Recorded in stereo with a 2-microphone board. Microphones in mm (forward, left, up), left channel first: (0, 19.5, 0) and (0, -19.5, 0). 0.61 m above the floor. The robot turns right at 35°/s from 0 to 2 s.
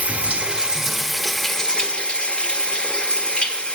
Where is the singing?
No singing in this recording.